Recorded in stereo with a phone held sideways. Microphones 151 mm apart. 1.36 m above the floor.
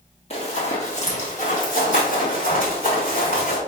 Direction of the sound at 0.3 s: 40° left (ahead or behind).